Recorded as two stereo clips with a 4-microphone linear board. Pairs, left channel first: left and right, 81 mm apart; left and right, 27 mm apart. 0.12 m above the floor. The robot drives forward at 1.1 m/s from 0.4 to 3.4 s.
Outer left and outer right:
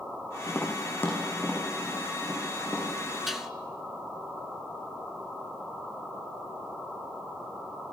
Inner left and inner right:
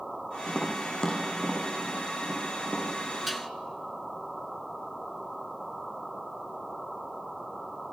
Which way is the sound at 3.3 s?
Centre (ahead or behind).